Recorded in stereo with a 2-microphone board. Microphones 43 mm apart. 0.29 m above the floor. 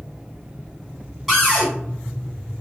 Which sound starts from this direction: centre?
A cupboard door, at 1.3 s.